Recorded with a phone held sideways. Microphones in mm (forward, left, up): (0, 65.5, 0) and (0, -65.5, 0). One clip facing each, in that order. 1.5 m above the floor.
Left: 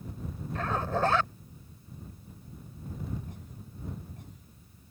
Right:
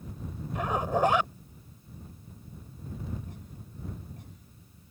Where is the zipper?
15° right (ahead or behind).